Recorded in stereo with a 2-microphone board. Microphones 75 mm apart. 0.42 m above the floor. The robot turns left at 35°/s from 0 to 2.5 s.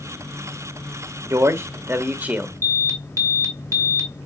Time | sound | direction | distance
1.3 | a man speaking | 120° right | 1.1 m
2.6 | an alarm | 40° right (ahead or behind) | 2 m